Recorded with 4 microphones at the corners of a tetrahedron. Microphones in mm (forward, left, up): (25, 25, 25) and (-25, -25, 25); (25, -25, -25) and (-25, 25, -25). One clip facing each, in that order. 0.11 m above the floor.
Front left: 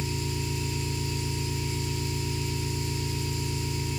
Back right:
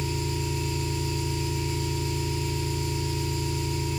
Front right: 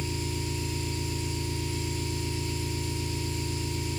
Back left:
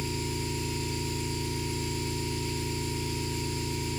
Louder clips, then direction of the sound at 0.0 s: Back right 2 dB, even; 175° right.